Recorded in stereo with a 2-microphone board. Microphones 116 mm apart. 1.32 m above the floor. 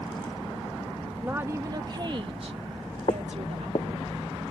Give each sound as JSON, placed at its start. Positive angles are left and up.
{"t": 1.2, "sound": "a woman speaking", "side_deg": -15}
{"t": 3.1, "sound": "footsteps", "side_deg": 50}